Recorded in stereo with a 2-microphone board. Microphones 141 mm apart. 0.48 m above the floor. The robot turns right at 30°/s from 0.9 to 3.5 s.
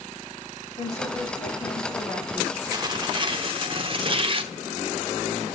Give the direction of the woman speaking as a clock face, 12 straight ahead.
8 o'clock.